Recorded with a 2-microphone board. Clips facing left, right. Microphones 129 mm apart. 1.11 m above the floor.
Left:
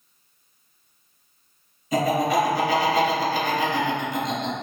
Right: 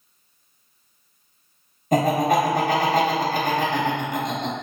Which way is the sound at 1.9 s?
50° right (ahead or behind).